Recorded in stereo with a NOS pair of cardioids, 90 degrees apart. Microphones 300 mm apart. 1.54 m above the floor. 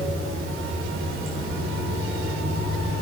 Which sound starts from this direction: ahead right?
Running water, at 0.0 s.